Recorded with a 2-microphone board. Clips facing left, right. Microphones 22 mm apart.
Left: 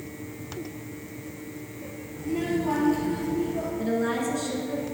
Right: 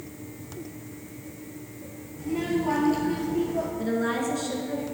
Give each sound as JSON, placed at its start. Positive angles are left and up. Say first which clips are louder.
{"t": 2.2, "sound": "a child speaking", "louder": "even", "side_deg": 10, "distance_m": 1.7}
{"t": 3.8, "sound": "a woman speaking", "louder": "left 2 dB", "side_deg": -5, "distance_m": 1.1}